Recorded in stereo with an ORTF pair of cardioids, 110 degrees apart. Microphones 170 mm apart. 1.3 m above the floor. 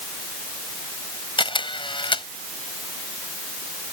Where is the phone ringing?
No phone ringing in this recording.